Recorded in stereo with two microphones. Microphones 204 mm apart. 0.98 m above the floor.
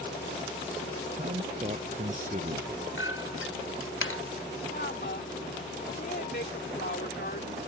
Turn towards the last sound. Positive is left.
turn(degrees=55)  # may be behind; listen again after turning